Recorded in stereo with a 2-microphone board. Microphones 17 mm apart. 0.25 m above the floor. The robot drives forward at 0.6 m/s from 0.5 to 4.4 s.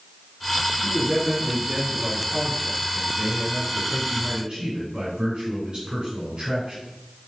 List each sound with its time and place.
0.8 s a man speaking: 50° right (ahead or behind), 3 m; by 6.8 s 60° right (ahead or behind), 3 m